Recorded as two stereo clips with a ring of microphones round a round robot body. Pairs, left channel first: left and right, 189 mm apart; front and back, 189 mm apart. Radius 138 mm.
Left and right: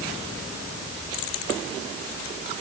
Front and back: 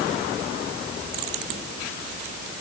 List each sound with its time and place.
Only background noise.